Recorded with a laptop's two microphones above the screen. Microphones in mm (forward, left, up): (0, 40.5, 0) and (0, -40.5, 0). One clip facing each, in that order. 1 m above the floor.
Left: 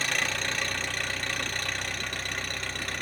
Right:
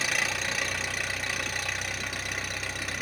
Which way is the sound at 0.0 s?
5° right (ahead or behind).